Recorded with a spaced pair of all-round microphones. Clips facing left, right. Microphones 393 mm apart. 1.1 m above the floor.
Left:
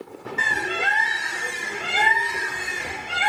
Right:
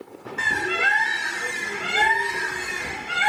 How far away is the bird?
About 1.2 m.